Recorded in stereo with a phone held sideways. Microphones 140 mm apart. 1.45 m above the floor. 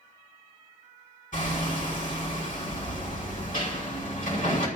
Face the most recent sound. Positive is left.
turn(degrees=75)  # may be behind; listen again after turning